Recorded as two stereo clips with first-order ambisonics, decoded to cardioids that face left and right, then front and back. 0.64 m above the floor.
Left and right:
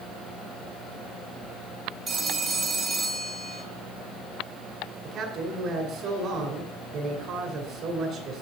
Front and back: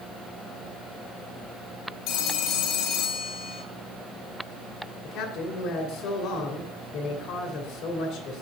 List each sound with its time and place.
2.1 s a phone ringing: 25° right, 1.1 m
5.0 s a man speaking: 40° right, 2.5 m